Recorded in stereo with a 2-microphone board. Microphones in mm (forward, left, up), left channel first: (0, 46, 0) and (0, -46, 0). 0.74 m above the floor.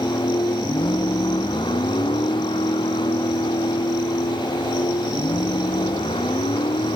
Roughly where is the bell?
No bell in this recording.